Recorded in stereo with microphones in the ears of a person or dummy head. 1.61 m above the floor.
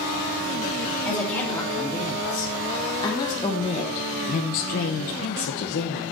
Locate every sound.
1.1 s a woman speaking: 5° left (ahead or behind), 2.5 m; by 6.0 s 45° left (ahead or behind), 1.0 m